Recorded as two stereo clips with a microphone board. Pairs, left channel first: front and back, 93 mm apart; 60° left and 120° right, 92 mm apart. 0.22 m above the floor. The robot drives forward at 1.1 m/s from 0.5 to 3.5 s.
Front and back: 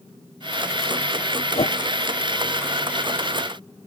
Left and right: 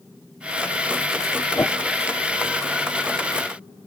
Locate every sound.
1.6 s a whoosh: 5° right